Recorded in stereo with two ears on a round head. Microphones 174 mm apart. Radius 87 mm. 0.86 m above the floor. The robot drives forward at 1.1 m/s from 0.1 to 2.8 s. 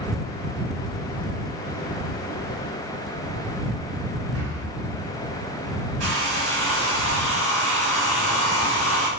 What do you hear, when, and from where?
4.3 s breathing: 65° right (ahead or behind), 4.5 m
6.0 s a hair dryer: 85° right, 6 m